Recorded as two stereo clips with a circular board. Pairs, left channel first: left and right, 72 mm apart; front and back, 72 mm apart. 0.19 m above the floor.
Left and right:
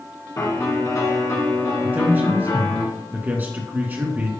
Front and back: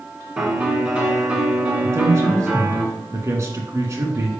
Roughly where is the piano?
Left.